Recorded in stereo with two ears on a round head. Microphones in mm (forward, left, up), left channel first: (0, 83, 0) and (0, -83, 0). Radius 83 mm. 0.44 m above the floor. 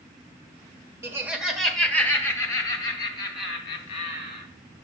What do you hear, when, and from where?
1.0 s laughter: 15° right (ahead or behind), 1.2 m; by 4.5 s 35° left (ahead or behind), 3 m